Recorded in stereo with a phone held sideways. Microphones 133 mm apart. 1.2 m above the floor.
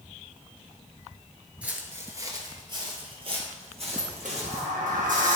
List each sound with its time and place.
1.6 s footsteps: 10° right (ahead or behind), 1.2 m; by 4.7 s 55° right (ahead or behind), 2.5 m
3.9 s a sliding door: 75° right (ahead or behind), 1.3 m